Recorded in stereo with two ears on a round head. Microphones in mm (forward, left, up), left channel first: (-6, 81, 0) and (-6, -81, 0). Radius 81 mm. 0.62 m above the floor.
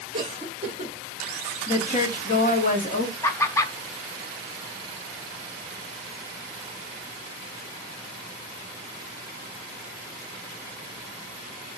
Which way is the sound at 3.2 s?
15° left (ahead or behind).